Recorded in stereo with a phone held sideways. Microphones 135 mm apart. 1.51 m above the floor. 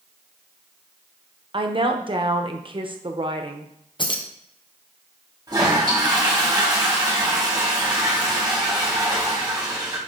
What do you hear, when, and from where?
1.5 s a woman speaking: 40° right (ahead or behind), 0.9 m
4.0 s keys jangling: 35° left (ahead or behind), 0.9 m
5.5 s a toilet flushing: 30° right (ahead or behind), 2.5 m